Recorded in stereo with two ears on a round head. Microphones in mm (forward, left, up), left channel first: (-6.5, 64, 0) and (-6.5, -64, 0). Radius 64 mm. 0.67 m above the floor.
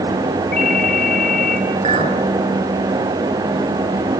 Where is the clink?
40° right (ahead or behind), 4.5 m.